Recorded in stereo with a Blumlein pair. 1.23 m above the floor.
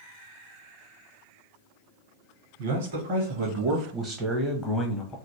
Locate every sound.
2.6 s a man speaking: 55° right, 1.7 m; by 5.2 s 25° left, 1.2 m